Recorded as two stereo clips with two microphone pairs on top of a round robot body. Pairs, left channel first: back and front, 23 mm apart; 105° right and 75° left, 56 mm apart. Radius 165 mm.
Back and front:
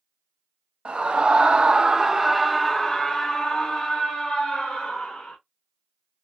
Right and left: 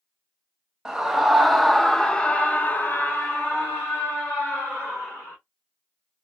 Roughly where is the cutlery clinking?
I don't hear cutlery clinking.